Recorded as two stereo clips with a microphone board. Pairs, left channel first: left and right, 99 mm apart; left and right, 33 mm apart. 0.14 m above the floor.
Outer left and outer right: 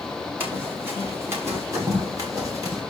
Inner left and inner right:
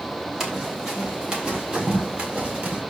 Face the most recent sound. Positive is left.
turn(degrees=-35)  # may be behind; listen again after turning